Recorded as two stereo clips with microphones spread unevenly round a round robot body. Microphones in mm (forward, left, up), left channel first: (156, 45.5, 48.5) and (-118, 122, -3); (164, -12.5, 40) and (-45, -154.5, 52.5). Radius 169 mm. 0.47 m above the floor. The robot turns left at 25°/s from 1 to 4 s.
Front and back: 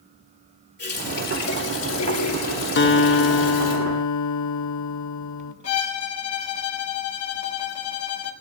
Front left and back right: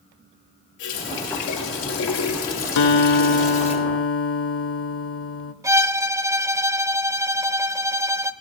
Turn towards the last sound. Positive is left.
turn(degrees=-65)